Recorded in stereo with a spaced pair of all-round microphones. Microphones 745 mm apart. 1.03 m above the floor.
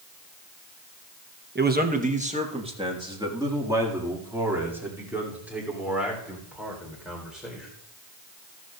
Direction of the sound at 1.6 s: 15° right (ahead or behind).